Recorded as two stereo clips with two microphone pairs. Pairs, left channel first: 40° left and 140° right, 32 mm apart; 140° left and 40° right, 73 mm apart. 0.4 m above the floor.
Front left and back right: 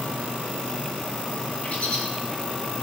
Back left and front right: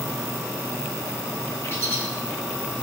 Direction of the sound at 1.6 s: 80° left.